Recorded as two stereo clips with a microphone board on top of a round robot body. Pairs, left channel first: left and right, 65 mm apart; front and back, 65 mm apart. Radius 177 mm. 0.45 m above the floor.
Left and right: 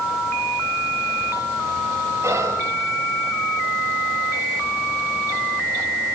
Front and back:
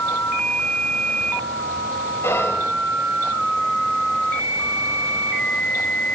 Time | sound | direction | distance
2.2 | whispering | 50° right | 2.5 m